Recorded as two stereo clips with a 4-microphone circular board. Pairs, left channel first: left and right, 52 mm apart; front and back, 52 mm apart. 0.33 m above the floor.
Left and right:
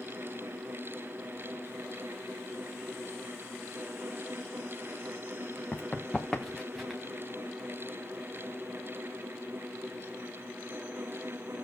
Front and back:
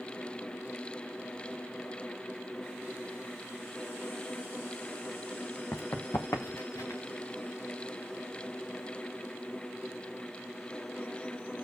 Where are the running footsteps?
35° left, 1.9 m; by 7.0 s 5° right, 2.5 m.